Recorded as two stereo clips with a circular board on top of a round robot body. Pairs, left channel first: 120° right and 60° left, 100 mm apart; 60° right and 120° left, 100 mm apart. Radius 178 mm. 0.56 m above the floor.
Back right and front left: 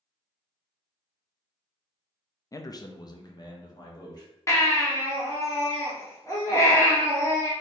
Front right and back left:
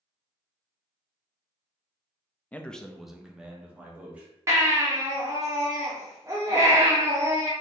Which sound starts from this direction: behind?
A baby crying, at 4.5 s.